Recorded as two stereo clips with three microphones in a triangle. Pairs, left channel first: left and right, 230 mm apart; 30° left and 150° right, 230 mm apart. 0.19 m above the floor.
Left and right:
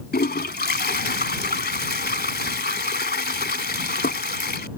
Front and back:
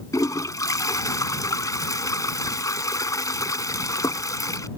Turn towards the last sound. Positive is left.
turn(degrees=100)